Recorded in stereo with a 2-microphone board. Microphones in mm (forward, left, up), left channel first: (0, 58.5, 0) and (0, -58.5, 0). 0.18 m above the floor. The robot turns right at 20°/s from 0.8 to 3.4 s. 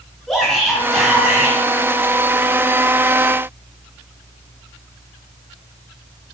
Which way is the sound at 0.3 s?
5° left (ahead or behind).